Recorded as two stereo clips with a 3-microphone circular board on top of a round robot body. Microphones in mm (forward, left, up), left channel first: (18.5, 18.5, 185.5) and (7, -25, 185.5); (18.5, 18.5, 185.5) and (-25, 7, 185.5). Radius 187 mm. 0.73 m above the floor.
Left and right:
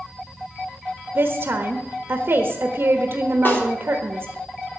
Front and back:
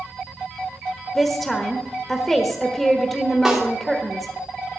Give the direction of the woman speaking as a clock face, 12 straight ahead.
2 o'clock.